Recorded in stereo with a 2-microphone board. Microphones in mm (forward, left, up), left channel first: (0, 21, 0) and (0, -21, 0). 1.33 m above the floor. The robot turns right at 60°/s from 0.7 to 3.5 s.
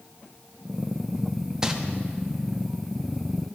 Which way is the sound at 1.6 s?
15° right (ahead or behind).